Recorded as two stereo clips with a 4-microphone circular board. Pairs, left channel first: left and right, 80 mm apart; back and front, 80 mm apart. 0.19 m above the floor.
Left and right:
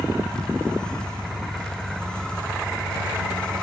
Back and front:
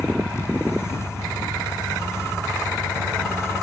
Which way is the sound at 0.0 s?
5° left.